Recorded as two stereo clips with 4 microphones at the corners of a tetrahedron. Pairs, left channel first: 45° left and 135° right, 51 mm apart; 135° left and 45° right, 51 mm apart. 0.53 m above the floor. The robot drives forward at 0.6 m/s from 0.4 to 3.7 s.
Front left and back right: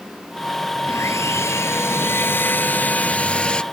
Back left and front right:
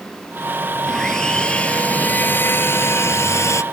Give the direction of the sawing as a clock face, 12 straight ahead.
10 o'clock.